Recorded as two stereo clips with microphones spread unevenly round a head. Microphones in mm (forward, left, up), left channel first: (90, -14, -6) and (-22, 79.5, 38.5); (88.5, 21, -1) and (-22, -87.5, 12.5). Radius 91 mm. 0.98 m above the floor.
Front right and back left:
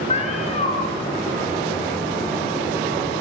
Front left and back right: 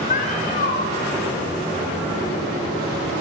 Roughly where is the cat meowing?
Ahead.